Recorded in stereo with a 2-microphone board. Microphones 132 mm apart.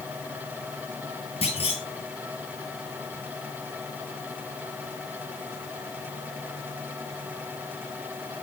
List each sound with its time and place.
1.4 s a clunk: 45° left (ahead or behind), 3 m